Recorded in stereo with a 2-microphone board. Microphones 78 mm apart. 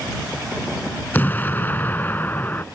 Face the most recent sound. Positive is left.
turn(degrees=25)  # may be behind; listen again after turning